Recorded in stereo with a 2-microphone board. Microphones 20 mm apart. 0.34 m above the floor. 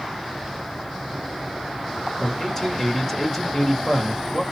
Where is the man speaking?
15° left (ahead or behind), 1.4 m.